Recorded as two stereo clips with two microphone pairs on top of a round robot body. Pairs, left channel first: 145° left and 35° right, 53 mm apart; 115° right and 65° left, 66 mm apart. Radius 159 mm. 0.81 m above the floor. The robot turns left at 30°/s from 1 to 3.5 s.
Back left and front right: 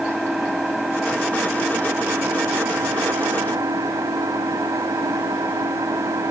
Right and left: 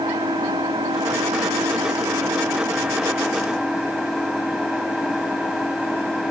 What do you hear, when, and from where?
0.0 s an engine running: 55° left, 2.0 m; by 6.3 s 20° right, 2.0 m